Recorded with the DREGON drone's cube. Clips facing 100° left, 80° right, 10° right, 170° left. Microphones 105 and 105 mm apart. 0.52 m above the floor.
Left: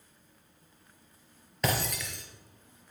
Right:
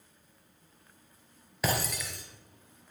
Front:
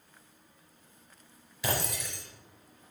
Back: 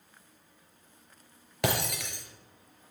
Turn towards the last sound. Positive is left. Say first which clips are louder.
# even, back 3 dB
turn(degrees=-165)